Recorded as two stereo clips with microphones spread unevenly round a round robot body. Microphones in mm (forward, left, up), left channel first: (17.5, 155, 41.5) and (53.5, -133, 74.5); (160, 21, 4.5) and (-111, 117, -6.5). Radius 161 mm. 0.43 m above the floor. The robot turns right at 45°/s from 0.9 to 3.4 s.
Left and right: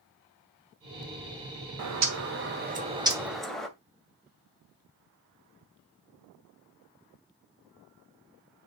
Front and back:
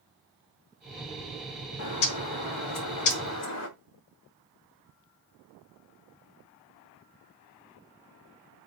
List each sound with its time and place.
1.8 s a bird: 60° right, 2 m; by 3.7 s 10° left, 2 m